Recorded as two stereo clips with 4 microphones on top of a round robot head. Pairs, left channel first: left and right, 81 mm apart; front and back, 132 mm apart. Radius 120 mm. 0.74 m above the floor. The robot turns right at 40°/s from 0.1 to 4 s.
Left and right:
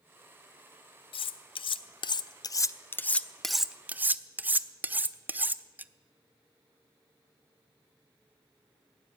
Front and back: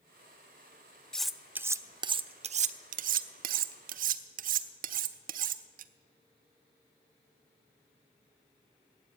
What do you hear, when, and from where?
1.1 s cutlery clinking: 85° left, 0.5 m; by 5.9 s 160° right, 0.5 m